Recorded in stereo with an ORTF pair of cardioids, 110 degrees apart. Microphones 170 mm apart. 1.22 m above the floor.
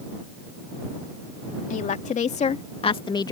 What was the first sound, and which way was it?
A woman speaking, 50° left.